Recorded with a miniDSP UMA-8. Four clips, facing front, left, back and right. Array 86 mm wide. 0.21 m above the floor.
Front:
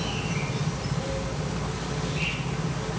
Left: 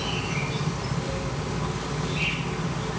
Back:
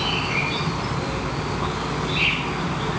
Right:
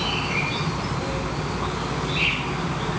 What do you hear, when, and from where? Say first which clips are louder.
0.0 s an insect: right 4 dB, back 6 dB; 150° right, 1.1 m